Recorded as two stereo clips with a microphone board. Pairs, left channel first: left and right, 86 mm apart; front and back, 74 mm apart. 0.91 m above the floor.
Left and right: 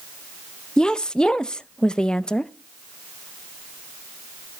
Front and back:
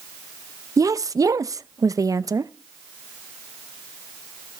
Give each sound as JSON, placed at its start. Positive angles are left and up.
{"t": 0.8, "sound": "a woman speaking", "azimuth_deg": 170, "distance_m": 0.5}